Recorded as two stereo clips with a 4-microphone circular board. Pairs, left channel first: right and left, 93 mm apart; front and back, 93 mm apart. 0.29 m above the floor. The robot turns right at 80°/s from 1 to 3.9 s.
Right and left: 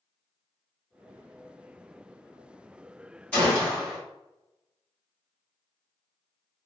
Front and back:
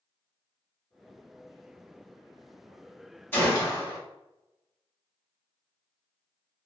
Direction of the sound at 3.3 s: 40° right.